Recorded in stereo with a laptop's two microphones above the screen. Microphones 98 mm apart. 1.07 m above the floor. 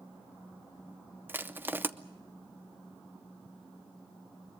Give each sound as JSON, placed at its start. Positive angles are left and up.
{"t": 1.3, "sound": "crushing", "side_deg": -20, "distance_m": 0.7}